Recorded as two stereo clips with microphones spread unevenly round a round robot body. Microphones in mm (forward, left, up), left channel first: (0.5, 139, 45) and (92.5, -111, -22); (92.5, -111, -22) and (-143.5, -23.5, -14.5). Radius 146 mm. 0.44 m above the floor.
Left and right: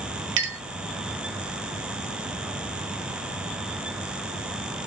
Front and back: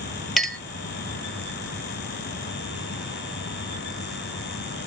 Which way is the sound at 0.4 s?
110° right.